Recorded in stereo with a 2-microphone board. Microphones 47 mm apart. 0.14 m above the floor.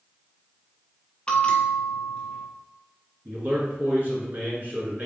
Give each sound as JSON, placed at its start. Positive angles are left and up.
{"t": 1.3, "sound": "a bell", "side_deg": 20, "distance_m": 0.7}
{"t": 3.2, "sound": "a man speaking", "side_deg": -40, "distance_m": 1.8}